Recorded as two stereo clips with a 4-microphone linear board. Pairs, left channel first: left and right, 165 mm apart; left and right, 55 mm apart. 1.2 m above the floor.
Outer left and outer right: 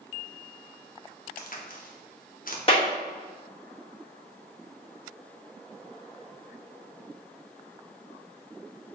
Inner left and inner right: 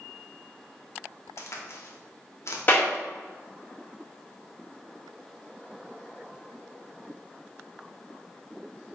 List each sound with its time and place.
1.4 s a crack: 60° left (ahead or behind), 0.7 m
2.7 s a clap: 35° left (ahead or behind), 1.6 m